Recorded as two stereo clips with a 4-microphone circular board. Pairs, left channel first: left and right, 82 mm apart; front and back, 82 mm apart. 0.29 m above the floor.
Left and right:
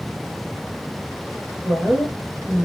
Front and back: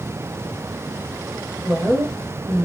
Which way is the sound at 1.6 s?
165° right.